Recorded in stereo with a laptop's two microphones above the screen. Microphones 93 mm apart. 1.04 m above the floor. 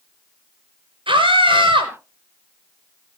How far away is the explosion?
I don't hear an explosion.